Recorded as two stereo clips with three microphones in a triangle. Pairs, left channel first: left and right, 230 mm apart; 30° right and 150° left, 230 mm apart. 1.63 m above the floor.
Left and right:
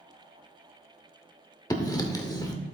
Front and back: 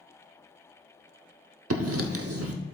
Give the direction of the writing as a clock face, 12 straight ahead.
7 o'clock.